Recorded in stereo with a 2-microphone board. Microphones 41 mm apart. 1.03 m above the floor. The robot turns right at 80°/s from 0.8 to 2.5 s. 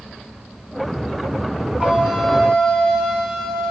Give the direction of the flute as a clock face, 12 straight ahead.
1 o'clock.